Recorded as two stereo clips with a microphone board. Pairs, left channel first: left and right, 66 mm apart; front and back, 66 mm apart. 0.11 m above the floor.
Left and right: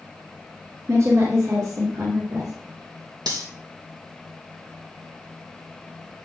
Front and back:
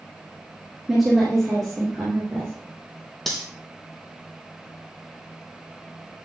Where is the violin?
No violin in this recording.